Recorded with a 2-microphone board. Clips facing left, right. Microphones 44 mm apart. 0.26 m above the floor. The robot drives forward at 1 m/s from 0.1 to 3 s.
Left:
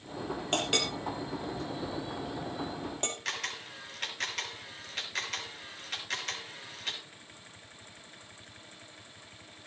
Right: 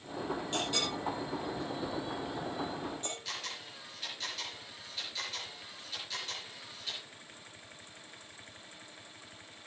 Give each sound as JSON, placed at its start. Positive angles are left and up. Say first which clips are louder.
{"t": 0.5, "sound": "a clink", "louder": "left 6 dB", "side_deg": 65, "distance_m": 5.0}
{"t": 3.2, "sound": "a camera shutter", "louder": "left 5 dB", "side_deg": 65, "distance_m": 5.5}